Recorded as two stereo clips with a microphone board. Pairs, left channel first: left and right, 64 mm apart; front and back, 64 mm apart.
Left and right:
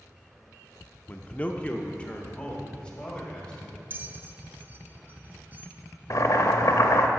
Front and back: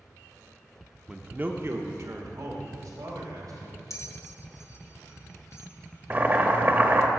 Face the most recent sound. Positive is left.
turn(degrees=125)